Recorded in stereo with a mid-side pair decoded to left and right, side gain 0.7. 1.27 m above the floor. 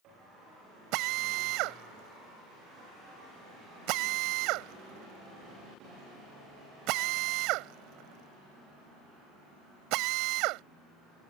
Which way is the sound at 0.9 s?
65° right.